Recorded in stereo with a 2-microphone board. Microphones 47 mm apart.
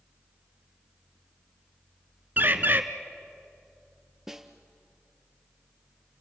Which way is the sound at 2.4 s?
45° right (ahead or behind).